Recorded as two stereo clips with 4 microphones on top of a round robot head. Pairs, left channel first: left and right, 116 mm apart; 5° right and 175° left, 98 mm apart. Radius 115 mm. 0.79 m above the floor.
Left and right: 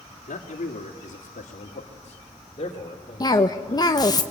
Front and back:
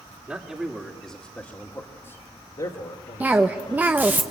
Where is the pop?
No pop in this recording.